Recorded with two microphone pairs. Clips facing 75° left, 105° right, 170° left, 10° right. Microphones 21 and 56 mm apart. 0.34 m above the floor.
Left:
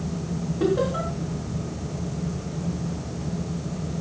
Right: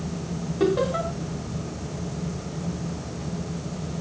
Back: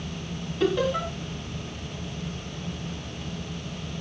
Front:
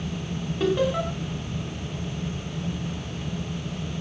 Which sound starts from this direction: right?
Laughter, at 0.6 s.